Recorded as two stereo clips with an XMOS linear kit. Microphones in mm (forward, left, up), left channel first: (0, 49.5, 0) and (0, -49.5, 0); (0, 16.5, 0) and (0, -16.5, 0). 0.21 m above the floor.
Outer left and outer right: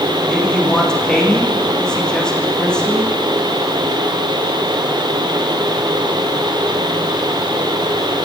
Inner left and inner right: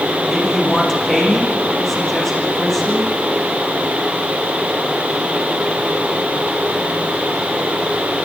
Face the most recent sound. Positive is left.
turn(degrees=10)  # may be behind; listen again after turning